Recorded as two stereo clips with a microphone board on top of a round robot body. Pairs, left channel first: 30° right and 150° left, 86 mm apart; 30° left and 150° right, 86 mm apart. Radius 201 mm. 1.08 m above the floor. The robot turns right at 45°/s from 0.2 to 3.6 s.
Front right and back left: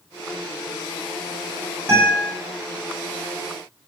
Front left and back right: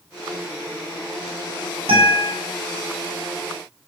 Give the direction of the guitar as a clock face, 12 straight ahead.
5 o'clock.